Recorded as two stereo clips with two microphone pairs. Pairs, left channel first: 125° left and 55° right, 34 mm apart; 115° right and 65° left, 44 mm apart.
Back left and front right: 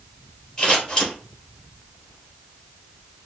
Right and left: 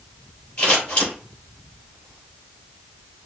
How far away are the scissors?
About 3 m.